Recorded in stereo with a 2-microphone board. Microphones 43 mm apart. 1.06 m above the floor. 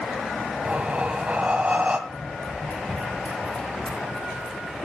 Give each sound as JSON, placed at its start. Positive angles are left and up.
{"t": 0.7, "sound": "breathing", "side_deg": -30, "distance_m": 2.0}
{"t": 2.1, "sound": "running footsteps", "side_deg": 30, "distance_m": 2.5}